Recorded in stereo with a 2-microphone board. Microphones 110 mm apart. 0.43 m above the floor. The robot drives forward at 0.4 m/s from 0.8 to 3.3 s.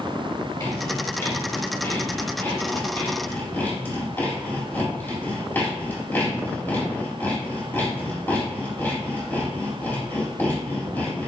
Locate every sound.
0.6 s sawing: 30° left (ahead or behind), 1.3 m; by 11.3 s 20° left (ahead or behind), 2.0 m